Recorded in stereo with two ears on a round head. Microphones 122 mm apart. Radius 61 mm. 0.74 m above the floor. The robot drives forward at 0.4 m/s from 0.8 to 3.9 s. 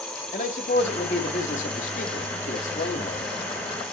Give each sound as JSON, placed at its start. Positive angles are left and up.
{"t": 0.3, "sound": "a man speaking", "side_deg": 50, "distance_m": 2.0}